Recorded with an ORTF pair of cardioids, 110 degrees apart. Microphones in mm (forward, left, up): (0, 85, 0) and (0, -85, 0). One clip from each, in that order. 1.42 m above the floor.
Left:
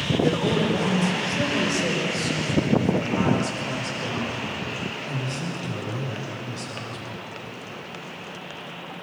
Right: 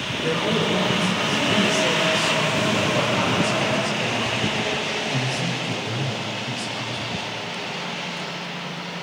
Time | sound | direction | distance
0.2 | a man speaking | 15° left | 5.5 m